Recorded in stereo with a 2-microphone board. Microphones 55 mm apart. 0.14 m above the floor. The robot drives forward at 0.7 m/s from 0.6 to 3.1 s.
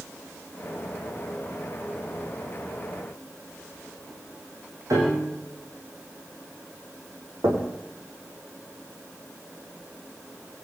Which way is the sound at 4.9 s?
70° right (ahead or behind).